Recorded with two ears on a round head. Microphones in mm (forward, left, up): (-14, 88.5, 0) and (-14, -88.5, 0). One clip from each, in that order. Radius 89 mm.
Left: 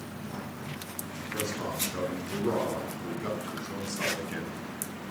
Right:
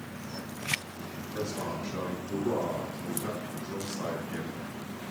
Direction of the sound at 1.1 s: 55° left (ahead or behind).